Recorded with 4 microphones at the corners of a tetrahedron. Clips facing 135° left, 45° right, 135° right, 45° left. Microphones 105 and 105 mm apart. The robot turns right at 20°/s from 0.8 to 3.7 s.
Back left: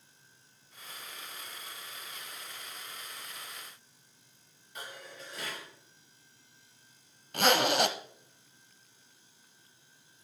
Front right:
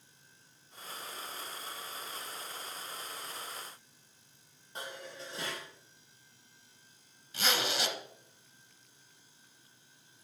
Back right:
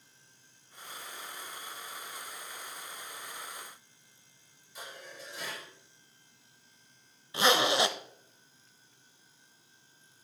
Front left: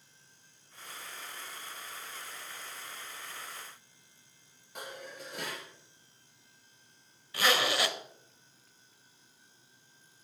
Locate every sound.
4.8 s dishes clattering: 15° left, 4.5 m
7.3 s a zipper: 160° left, 0.8 m